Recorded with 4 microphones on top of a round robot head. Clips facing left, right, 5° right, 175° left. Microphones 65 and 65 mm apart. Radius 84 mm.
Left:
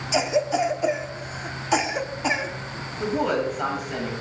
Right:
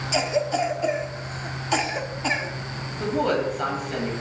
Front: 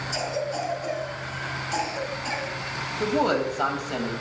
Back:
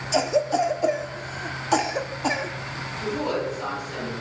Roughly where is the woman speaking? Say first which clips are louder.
Even, front 4 dB; ahead.